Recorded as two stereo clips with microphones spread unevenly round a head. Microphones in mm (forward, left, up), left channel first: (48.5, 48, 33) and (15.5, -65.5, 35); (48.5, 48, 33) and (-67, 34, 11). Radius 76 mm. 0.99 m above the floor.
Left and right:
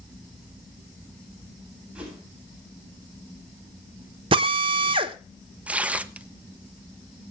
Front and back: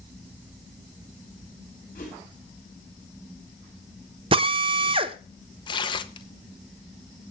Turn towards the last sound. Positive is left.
turn(degrees=-30)